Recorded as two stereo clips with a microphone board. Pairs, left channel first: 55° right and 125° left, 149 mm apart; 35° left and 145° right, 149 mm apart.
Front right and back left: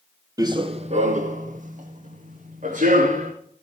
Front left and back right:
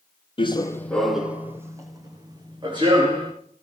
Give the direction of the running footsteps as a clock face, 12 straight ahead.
10 o'clock.